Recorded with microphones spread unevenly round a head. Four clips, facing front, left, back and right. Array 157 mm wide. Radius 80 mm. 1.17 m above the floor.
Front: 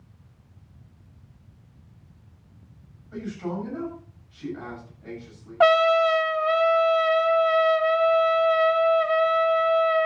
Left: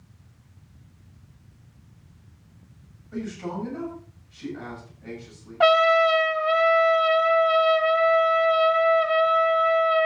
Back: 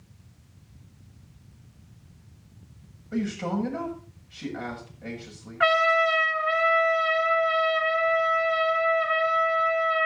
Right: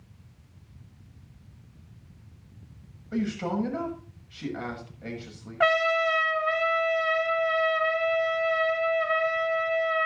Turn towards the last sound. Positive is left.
turn(degrees=10)